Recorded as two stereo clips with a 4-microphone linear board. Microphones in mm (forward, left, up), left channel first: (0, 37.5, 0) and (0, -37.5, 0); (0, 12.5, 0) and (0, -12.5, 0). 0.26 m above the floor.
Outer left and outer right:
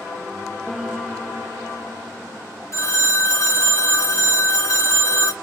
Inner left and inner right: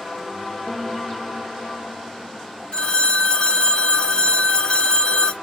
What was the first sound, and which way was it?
A piano, centre (ahead or behind).